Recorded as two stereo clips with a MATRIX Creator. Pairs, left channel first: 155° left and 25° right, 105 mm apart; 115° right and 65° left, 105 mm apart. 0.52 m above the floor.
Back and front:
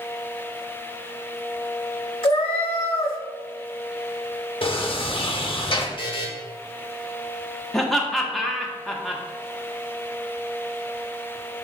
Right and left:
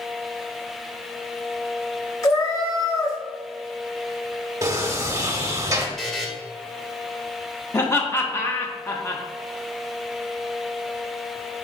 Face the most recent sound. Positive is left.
turn(degrees=-115)